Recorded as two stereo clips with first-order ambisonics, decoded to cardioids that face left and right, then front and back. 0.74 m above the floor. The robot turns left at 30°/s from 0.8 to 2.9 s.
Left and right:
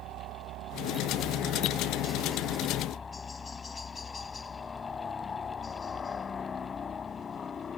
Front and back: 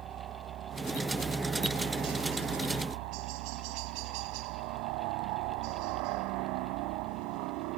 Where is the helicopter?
125° right; by 7.8 s 160° left.